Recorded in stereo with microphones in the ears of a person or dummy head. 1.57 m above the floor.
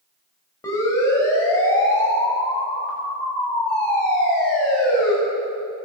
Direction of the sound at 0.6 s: 15° left (ahead or behind).